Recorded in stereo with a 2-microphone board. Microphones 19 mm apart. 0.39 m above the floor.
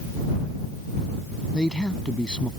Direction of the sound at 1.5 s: 60° left (ahead or behind).